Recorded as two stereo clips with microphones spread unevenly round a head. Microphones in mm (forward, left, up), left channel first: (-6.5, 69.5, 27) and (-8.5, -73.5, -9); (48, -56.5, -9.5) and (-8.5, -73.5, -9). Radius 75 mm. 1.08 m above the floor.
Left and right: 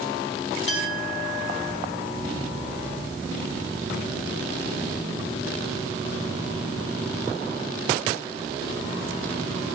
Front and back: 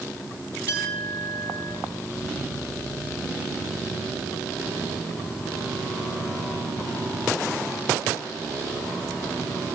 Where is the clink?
85° left, 3 m.